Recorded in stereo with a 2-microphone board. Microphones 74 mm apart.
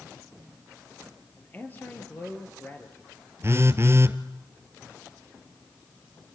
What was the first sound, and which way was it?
A man speaking, 25° left (ahead or behind).